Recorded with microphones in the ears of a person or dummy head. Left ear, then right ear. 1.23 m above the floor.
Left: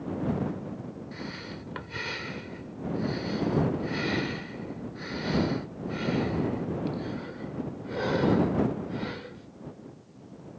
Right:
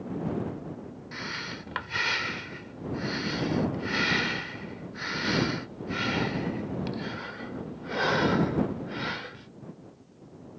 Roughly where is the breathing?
Centre.